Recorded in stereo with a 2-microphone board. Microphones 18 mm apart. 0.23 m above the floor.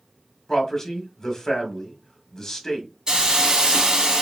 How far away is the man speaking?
About 1.4 m.